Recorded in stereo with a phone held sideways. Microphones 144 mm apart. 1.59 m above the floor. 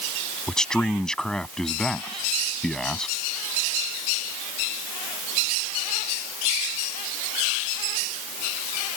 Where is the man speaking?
5° left (ahead or behind).